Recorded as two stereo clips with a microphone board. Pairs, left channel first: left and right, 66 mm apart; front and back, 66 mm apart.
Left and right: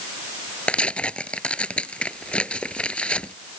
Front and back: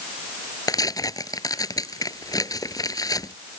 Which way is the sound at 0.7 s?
15° left.